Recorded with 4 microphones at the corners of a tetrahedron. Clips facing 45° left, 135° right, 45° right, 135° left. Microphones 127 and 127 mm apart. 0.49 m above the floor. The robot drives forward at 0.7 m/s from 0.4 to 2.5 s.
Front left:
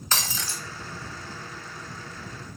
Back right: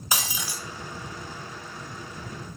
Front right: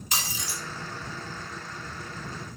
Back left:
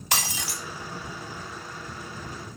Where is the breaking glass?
145° left, 1.2 m; by 0.6 s 150° left, 1.3 m.